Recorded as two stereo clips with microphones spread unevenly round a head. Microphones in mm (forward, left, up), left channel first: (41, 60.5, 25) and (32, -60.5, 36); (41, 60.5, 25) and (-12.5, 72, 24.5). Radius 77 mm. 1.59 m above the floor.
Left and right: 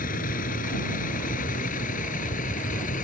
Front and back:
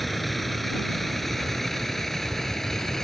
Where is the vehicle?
75° left; by 3.0 s 70° left.